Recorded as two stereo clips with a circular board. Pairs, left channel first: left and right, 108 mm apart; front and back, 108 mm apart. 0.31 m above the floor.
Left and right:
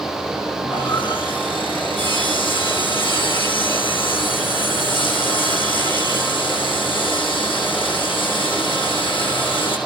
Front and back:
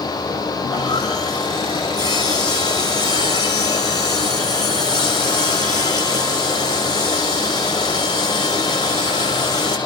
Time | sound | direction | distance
0.6 | sawing | 50° left | 5 m